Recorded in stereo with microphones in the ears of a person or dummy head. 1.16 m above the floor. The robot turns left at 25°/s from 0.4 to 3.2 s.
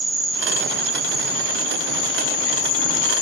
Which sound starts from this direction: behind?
An insect, at 0.0 s.